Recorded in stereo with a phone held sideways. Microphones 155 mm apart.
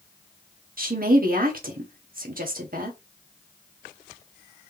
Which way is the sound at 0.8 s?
60° right (ahead or behind).